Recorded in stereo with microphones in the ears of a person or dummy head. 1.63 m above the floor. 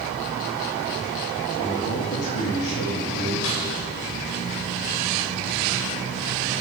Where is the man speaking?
60° left (ahead or behind), 3.5 m.